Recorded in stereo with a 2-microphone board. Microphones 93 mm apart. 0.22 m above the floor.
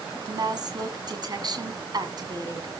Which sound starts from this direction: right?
A woman speaking, at 0.3 s.